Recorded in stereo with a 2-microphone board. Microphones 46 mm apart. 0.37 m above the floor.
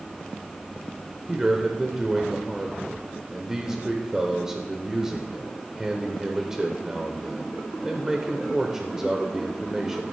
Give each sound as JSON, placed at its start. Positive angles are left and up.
{"t": 1.3, "sound": "a man speaking", "side_deg": -10, "distance_m": 0.9}